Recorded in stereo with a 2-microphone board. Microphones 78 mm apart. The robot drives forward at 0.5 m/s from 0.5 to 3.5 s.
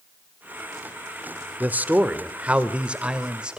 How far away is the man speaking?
About 1.0 m.